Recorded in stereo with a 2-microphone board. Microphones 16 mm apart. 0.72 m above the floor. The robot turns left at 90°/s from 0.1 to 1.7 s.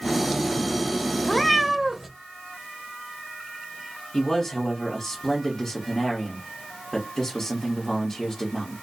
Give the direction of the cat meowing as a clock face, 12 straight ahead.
11 o'clock.